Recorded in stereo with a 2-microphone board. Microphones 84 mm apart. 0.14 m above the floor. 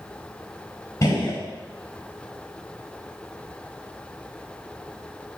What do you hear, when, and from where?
1.0 s a gunshot: 45° left (ahead or behind), 6 m